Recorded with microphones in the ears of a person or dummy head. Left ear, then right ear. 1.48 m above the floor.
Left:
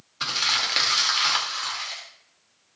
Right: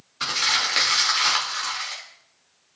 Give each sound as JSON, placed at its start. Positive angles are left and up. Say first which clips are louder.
{"t": 0.2, "sound": "crumpling", "louder": "right 1 dB", "side_deg": 5, "distance_m": 2.0}